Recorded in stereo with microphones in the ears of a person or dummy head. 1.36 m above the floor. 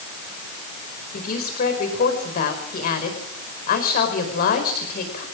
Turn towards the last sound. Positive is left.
turn(degrees=55)  # may be behind; listen again after turning